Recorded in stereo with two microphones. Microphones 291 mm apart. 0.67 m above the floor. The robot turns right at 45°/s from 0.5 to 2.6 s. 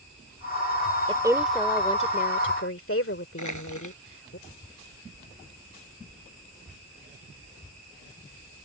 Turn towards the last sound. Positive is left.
turn(degrees=80)